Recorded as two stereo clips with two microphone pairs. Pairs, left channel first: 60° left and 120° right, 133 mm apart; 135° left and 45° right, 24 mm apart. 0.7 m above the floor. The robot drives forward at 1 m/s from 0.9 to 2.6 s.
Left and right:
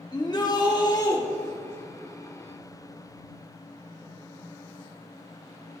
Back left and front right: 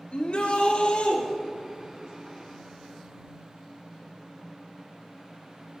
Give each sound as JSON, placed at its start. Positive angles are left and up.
{"t": 0.1, "sound": "a shout", "azimuth_deg": 115, "distance_m": 2.0}